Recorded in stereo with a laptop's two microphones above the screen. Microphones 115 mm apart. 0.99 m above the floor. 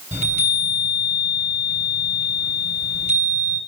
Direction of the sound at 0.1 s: 85° right.